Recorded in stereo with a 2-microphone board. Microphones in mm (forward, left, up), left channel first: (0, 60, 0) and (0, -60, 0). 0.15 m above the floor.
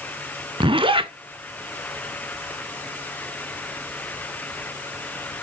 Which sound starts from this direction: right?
A zipper, at 0.6 s.